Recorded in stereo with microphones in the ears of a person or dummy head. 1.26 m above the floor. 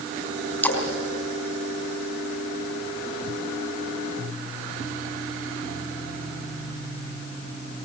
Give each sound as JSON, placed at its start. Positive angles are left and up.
{"t": 0.6, "sound": "a splash", "side_deg": 10, "distance_m": 4.0}